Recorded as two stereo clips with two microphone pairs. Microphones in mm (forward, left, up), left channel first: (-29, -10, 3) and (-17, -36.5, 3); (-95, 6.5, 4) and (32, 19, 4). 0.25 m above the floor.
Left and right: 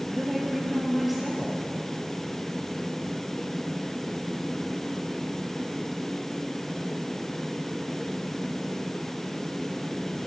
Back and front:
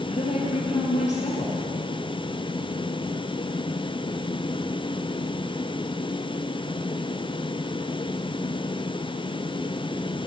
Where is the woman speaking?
150° right, 4.5 m.